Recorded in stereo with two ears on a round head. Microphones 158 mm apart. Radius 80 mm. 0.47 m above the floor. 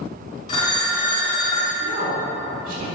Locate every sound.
0.5 s a phone ringing: 25° left (ahead or behind), 2 m
1.8 s a woman speaking: 50° right (ahead or behind), 1.7 m